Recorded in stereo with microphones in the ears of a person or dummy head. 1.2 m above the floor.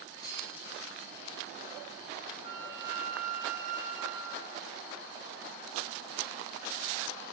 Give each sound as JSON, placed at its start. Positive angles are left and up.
{"t": 0.2, "sound": "cutlery clinking", "side_deg": 15, "distance_m": 2.0}
{"t": 2.4, "sound": "a flute", "side_deg": -45, "distance_m": 3.5}